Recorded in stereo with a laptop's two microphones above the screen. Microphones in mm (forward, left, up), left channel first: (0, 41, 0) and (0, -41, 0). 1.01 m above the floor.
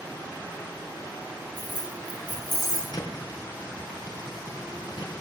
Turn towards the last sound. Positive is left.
turn(degrees=55)  # may be behind; listen again after turning